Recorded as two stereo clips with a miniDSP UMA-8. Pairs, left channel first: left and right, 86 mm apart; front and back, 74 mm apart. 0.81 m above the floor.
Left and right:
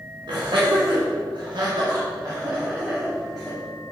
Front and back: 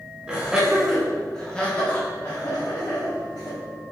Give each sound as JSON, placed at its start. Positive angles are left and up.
{"t": 0.3, "sound": "laughter", "azimuth_deg": -105, "distance_m": 2.5}